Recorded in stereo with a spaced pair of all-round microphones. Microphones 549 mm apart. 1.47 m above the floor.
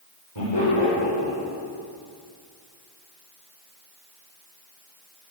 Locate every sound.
0.3 s laughter: 60° left (ahead or behind), 4.5 m